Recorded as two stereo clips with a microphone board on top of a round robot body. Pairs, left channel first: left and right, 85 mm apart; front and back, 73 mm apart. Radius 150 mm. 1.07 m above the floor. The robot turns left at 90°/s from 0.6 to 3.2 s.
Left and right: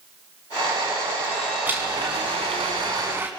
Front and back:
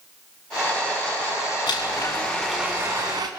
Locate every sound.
1.7 s a blender: 15° right, 1.5 m; by 3.3 s 155° right, 1.5 m